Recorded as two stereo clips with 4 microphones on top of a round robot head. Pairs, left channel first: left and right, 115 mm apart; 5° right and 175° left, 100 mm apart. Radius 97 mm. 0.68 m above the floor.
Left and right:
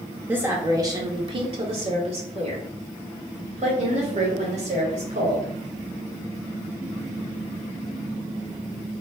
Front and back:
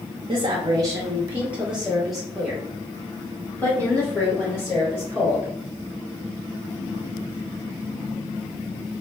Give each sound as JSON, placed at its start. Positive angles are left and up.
{"t": 0.3, "sound": "a woman speaking", "azimuth_deg": -165, "distance_m": 0.7}